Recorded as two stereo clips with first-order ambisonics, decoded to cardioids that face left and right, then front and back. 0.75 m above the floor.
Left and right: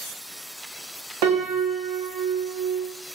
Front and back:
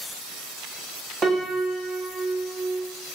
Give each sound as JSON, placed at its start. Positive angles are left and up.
{"t": 1.2, "sound": "a piano", "azimuth_deg": -110, "distance_m": 0.5}